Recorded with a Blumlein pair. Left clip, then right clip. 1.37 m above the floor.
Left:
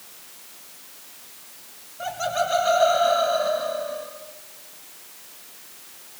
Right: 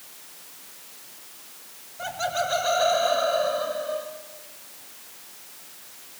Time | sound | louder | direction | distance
2.0 | laughter | left 2 dB | 65° right | 6.5 m